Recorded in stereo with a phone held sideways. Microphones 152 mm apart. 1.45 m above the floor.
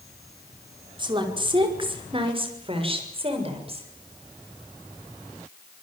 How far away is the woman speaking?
About 5 m.